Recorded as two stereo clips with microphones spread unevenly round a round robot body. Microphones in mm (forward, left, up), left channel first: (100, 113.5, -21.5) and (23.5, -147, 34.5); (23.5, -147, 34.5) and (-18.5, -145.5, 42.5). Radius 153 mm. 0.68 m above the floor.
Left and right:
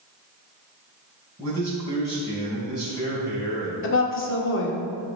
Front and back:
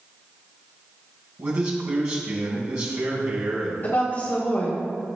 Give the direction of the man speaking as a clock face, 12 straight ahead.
7 o'clock.